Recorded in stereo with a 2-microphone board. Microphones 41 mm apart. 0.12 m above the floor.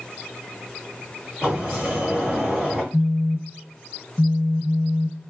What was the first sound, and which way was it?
A sliding door, centre (ahead or behind).